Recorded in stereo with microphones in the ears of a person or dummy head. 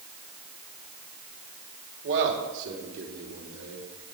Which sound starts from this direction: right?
A man speaking, at 2.0 s.